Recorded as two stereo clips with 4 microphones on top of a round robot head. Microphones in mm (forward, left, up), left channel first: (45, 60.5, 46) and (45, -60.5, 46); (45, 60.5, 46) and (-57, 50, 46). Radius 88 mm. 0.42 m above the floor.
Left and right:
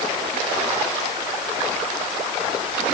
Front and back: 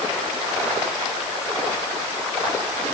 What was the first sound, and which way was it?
Only background noise.